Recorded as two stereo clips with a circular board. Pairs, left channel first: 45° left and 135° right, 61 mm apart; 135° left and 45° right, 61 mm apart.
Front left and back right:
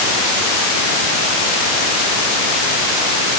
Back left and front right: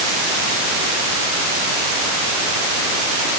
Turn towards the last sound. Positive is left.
No sound to turn to.